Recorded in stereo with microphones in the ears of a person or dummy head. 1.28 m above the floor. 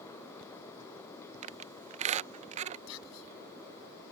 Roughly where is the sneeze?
I don't hear a sneeze.